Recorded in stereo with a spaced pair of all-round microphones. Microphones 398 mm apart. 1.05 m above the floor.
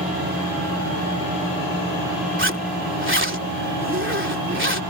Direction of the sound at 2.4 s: 30° right (ahead or behind).